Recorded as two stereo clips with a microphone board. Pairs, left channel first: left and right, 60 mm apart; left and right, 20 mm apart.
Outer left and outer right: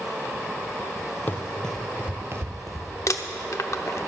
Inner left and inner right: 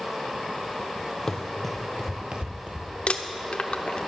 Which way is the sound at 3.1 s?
65° left (ahead or behind).